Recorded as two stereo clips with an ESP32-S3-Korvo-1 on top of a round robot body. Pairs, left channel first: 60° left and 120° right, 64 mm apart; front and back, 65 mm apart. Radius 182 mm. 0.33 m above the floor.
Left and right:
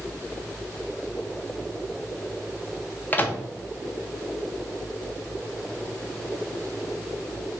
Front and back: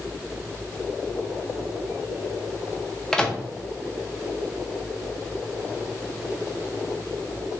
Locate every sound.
3.1 s a microwave: 65° left, 0.6 m